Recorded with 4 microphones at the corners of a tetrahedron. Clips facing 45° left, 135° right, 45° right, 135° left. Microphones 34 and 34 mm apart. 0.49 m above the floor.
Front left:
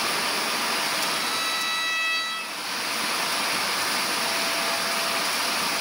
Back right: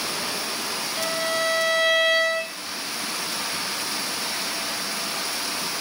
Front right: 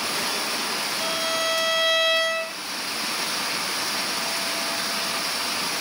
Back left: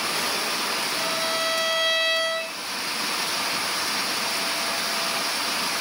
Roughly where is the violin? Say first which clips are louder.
Back right 2 dB, front right 2 dB; behind.